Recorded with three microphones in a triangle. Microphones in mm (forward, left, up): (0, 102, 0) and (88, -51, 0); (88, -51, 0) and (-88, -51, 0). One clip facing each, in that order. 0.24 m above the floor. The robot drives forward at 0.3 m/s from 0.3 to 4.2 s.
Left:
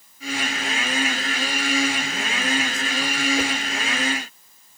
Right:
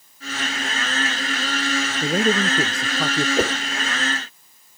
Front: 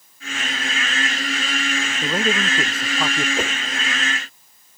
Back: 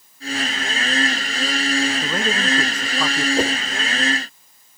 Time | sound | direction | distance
2.0 | a man speaking | 80° right | ?
3.4 | a whoosh | 105° right | ?